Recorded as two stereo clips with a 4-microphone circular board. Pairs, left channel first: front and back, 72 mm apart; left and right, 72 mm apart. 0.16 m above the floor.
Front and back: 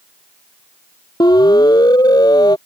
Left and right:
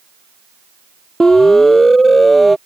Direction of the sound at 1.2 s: 10° left.